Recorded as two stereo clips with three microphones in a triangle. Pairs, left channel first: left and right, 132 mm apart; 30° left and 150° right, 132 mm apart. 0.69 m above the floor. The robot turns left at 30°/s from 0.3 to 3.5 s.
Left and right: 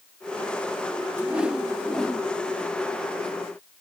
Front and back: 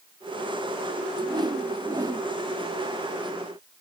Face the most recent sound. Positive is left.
turn(degrees=130)